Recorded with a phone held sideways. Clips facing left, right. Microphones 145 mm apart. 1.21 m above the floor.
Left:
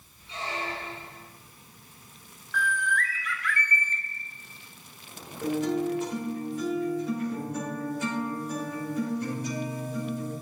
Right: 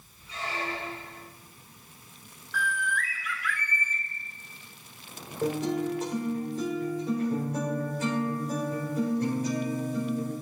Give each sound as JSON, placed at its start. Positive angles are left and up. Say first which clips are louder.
{"t": 0.3, "sound": "a squeak", "louder": "even", "side_deg": 25, "distance_m": 2.5}
{"t": 2.5, "sound": "a bird", "louder": "left 2 dB", "side_deg": -5, "distance_m": 0.8}
{"t": 5.4, "sound": "a guitar", "louder": "left 1 dB", "side_deg": -40, "distance_m": 3.5}